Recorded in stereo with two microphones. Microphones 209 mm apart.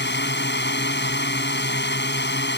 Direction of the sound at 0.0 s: 55° left (ahead or behind).